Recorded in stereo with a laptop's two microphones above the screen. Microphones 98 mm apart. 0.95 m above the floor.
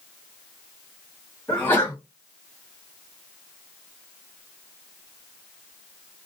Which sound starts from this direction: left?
A sneeze, at 1.5 s.